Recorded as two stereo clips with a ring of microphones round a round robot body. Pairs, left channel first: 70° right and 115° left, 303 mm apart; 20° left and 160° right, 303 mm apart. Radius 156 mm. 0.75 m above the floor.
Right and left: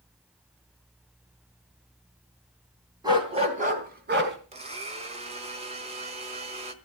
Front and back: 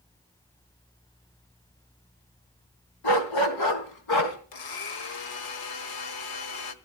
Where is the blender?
40° left, 1.4 m.